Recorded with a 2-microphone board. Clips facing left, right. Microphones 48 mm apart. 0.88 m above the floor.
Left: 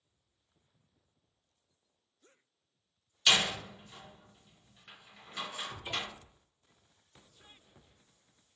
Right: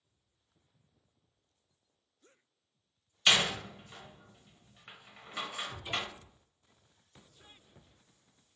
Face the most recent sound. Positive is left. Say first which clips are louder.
# right 1 dB
turn(degrees=25)  # may be behind; listen again after turning